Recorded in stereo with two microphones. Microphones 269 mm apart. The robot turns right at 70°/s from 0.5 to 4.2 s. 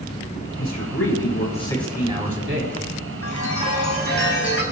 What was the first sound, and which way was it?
A man speaking, 90° left.